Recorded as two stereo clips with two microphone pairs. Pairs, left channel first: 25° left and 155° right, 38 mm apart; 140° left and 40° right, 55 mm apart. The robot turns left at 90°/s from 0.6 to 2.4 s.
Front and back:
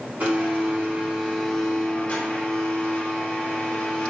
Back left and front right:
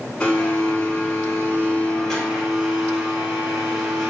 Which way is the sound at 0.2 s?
165° right.